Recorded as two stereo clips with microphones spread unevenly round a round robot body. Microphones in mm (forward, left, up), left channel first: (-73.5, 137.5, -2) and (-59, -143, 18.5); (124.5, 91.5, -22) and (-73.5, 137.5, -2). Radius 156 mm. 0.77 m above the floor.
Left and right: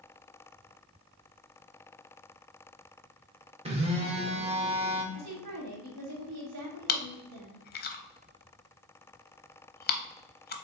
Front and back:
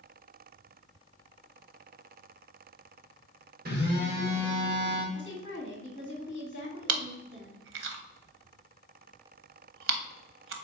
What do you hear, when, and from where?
3.6 s a phone buzzing: 155° right, 1.1 m
5.1 s a woman speaking: 50° right, 1.6 m
6.9 s chewing: 150° left, 0.7 m